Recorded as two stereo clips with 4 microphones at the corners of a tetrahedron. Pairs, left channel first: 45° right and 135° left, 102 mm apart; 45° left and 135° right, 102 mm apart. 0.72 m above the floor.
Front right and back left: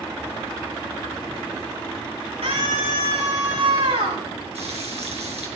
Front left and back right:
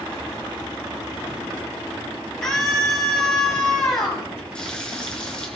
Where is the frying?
125° left, 3.5 m.